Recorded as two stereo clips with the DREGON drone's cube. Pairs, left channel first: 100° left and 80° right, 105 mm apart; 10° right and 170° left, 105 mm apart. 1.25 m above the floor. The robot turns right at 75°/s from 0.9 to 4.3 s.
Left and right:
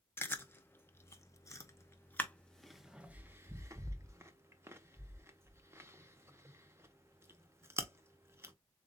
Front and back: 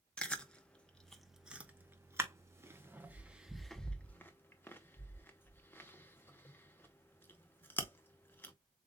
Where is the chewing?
55° left, 0.7 m; by 8.6 s 50° right, 0.7 m.